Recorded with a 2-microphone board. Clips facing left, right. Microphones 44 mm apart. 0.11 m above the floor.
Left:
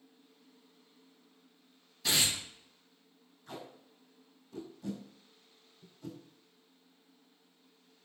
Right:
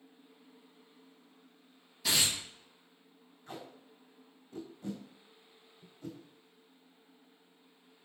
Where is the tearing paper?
5° right (ahead or behind), 2 m.